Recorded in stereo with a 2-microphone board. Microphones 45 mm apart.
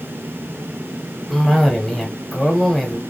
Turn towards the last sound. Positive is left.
turn(degrees=5)  # may be behind; listen again after turning